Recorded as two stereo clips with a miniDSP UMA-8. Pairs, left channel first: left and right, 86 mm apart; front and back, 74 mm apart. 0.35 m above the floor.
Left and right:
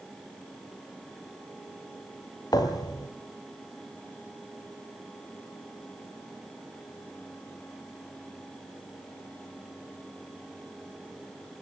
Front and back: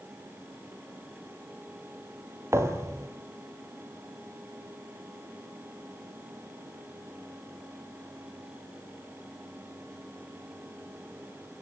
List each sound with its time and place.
2.5 s a thud: 130° left, 2.5 m